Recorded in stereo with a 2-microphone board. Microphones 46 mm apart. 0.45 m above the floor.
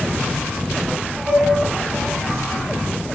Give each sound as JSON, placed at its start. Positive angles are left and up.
{"t": 1.3, "sound": "a flute", "side_deg": -25, "distance_m": 1.8}